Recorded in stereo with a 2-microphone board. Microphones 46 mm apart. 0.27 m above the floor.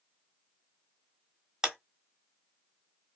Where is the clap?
15° right (ahead or behind), 0.9 m.